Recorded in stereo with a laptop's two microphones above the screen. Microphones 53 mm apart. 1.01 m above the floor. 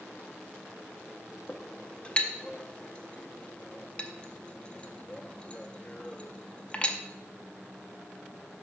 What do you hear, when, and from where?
1.5 s a clink: 25° left (ahead or behind), 0.5 m